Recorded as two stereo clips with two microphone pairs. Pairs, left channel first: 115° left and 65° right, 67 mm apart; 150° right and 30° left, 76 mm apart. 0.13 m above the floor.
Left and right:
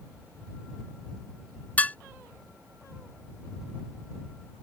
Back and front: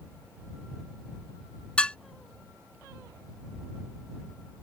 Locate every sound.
1.8 s dishes clattering: 150° left